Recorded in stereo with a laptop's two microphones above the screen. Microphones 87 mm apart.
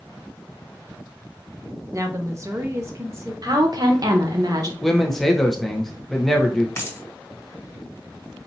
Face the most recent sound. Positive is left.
turn(degrees=30)  # may be behind; listen again after turning